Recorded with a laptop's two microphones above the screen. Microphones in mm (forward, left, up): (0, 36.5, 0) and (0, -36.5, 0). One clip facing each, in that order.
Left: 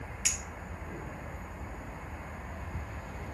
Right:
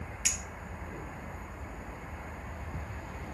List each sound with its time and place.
0.2 s a clink: centre (ahead or behind), 0.9 m